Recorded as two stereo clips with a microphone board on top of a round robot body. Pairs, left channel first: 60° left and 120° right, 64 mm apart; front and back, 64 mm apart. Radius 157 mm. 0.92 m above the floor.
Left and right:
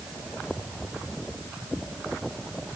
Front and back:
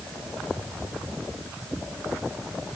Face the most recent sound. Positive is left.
No sound to turn to.